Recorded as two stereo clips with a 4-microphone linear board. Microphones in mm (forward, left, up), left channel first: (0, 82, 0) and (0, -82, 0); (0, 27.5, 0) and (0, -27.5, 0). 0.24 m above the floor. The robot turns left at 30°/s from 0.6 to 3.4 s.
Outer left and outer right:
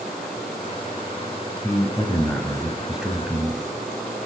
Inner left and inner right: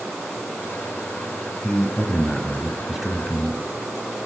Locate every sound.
1.6 s a man speaking: 35° left, 1.4 m; by 3.6 s 20° right, 1.4 m